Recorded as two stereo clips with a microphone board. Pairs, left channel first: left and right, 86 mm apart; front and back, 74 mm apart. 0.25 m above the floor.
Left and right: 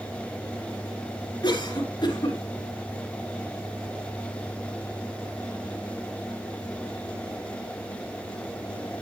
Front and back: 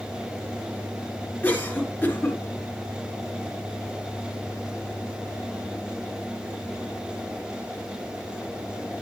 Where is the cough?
65° left, 3 m.